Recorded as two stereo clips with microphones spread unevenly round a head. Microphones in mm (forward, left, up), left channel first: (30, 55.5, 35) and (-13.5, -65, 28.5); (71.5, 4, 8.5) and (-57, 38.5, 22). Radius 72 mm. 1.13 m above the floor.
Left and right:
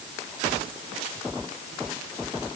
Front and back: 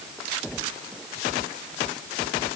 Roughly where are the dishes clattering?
I don't hear dishes clattering.